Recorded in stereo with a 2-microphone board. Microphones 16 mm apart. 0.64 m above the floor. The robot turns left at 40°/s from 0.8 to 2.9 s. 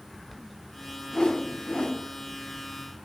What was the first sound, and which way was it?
A whoosh, 130° left.